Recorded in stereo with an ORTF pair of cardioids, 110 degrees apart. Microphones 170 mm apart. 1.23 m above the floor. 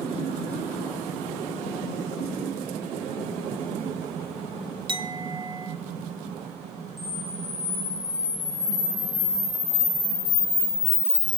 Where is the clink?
30° right, 0.8 m.